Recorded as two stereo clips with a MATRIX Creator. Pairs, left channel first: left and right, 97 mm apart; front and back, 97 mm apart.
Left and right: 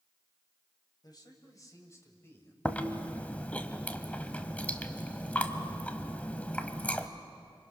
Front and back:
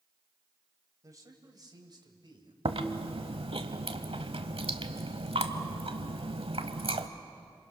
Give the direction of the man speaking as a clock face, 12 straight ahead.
8 o'clock.